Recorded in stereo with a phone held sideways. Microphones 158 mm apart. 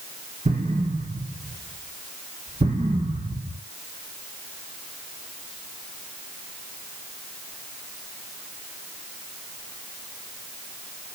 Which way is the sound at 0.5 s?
50° right (ahead or behind).